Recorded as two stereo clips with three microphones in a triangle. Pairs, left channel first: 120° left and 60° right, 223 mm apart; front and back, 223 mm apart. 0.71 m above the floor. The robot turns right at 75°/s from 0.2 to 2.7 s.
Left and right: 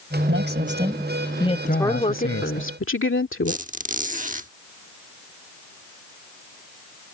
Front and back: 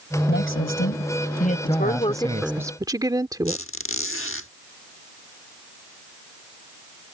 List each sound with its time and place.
0.3 s a man speaking: 35° right; by 2.6 s 140° left
1.6 s a woman speaking: 30° left; by 3.6 s 110° left
3.5 s a squeak: 10° right